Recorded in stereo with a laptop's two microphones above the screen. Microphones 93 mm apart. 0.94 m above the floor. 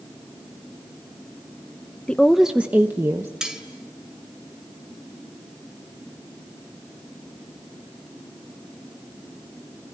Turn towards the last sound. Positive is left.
turn(degrees=-5)  # may be behind; listen again after turning